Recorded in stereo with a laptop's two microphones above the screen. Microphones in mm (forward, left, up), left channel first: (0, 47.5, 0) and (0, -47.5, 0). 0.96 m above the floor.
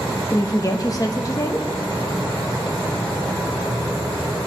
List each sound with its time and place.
0.3 s a woman speaking: 40° left (ahead or behind), 0.9 m